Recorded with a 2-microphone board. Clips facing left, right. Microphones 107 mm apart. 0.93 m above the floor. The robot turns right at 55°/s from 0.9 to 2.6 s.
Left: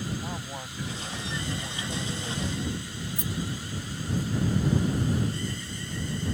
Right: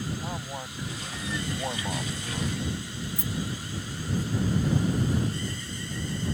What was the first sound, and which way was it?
A man speaking, 170° right.